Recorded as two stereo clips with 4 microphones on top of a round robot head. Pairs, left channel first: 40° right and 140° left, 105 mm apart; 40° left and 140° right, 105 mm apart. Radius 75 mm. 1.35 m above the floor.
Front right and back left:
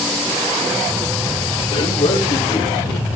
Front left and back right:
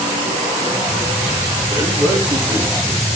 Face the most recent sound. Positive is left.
turn(degrees=-80)